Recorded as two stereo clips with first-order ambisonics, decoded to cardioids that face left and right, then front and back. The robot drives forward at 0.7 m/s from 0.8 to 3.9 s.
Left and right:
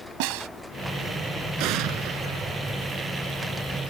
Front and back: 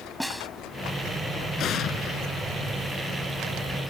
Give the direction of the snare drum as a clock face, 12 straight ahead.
3 o'clock.